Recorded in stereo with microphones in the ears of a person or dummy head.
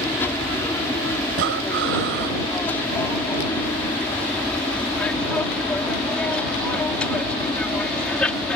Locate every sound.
0.0 s an aircraft: 15° left (ahead or behind); by 8.6 s 5° left (ahead or behind)
1.3 s breathing: 70° right (ahead or behind)